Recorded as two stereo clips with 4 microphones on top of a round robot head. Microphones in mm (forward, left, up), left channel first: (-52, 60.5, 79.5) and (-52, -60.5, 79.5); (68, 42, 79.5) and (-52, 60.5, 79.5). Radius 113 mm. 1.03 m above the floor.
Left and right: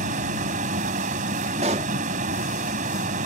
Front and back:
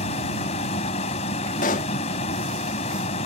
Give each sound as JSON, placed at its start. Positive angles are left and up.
{"t": 0.0, "sound": "a vehicle", "azimuth_deg": -55}
{"t": 1.6, "sound": "a pop", "azimuth_deg": -40}